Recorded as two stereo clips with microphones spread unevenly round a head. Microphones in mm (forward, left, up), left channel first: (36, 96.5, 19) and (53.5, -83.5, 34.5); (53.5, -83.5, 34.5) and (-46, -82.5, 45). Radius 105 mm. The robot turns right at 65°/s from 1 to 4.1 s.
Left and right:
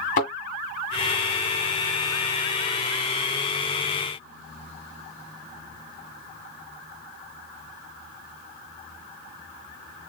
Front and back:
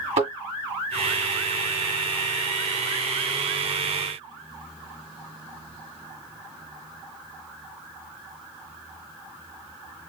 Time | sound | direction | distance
0.2 | a thud | 150° left | 1.9 m